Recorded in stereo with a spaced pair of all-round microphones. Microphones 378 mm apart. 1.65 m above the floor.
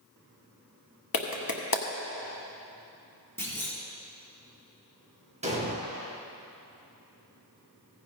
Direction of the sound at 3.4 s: 5° left (ahead or behind).